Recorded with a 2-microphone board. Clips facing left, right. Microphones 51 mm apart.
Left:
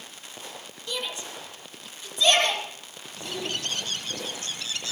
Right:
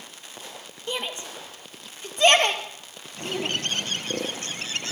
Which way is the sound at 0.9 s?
30° right (ahead or behind).